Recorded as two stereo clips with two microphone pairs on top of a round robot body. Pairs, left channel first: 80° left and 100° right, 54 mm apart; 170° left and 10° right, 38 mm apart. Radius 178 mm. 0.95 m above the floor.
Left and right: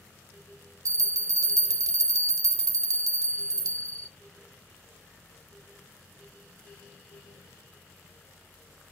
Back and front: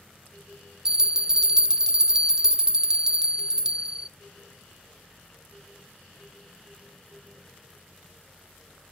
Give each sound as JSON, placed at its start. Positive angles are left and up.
{"t": 0.8, "sound": "a bell", "azimuth_deg": -80, "distance_m": 0.5}